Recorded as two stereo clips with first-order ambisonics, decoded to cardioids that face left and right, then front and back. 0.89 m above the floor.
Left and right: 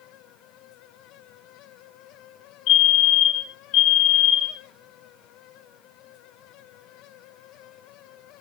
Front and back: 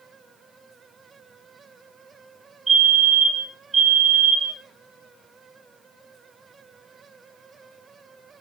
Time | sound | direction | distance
2.7 | a fire alarm | 110° left | 3 m